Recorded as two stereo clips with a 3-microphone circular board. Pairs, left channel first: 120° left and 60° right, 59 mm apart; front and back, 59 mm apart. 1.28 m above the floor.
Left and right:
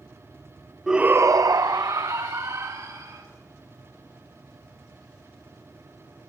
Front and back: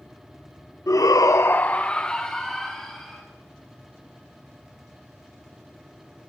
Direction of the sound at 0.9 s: 20° left.